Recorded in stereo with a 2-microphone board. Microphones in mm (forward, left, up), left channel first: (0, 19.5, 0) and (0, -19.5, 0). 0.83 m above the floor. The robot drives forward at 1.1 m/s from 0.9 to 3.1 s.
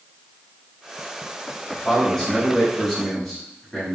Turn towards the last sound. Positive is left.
turn(degrees=10)  # may be behind; listen again after turning